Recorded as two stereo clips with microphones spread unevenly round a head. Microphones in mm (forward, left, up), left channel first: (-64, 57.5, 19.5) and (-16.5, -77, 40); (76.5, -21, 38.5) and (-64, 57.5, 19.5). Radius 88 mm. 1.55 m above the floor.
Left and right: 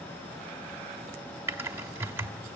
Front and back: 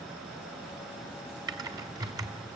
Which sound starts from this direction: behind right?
Typing on a keyboard, at 1.5 s.